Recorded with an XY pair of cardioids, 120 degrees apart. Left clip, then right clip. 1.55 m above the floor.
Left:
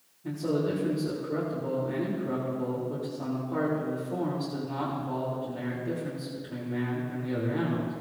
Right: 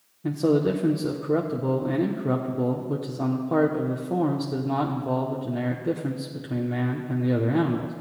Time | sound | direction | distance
0.2 | a man speaking | 65° right | 1.3 m